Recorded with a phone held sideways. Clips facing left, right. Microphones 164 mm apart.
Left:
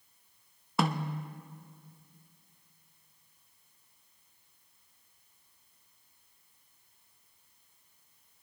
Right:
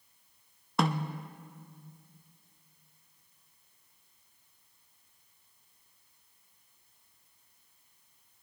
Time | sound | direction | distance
0.8 | a snare drum | 5° left (ahead or behind) | 0.6 m